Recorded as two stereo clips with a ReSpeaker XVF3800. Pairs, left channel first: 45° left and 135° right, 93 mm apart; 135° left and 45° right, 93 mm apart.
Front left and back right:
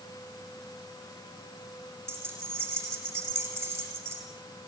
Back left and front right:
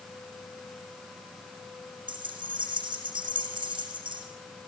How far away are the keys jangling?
About 6.5 m.